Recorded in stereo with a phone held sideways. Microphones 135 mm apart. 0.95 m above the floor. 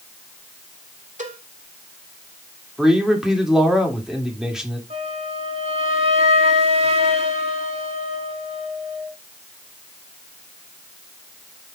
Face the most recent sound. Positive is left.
turn(degrees=-55)  # may be behind; listen again after turning